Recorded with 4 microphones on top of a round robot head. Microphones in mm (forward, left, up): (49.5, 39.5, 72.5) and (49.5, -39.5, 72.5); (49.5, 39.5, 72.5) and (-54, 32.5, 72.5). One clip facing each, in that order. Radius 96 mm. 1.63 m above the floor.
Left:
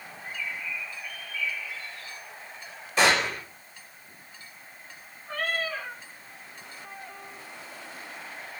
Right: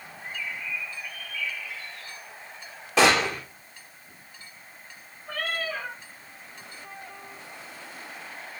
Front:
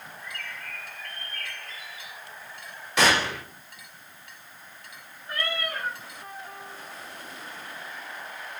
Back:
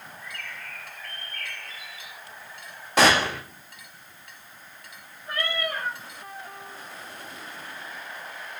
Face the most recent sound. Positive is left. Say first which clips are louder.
# left 1 dB, back 2 dB
turn(degrees=-135)